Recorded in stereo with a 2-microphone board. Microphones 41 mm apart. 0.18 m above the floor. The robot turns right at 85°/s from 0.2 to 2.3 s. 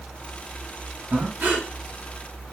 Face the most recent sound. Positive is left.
turn(degrees=-25)